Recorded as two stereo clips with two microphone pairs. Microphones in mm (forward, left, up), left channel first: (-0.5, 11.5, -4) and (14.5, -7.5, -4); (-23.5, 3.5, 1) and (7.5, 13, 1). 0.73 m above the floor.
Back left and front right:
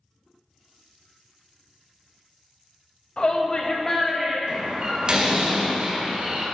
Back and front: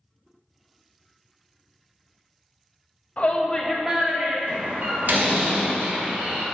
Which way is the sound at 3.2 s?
160° left.